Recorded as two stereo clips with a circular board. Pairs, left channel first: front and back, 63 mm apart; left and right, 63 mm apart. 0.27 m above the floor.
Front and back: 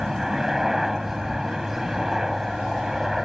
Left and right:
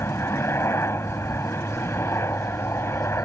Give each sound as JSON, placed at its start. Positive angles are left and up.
{"t": 0.0, "sound": "a helicopter", "azimuth_deg": 100}